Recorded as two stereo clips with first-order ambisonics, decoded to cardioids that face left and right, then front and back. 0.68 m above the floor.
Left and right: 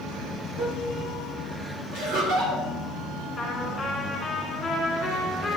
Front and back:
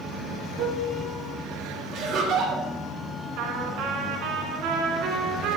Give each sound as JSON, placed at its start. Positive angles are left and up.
{"t": 0.6, "sound": "a piano", "azimuth_deg": -145, "distance_m": 4.5}
{"t": 1.9, "sound": "laughter", "azimuth_deg": -135, "distance_m": 2.5}
{"t": 3.4, "sound": "a trumpet", "azimuth_deg": 170, "distance_m": 2.5}